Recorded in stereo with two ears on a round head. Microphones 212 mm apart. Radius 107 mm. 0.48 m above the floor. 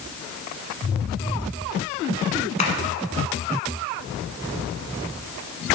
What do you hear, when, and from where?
2.6 s tapping: 25° left (ahead or behind), 1.1 m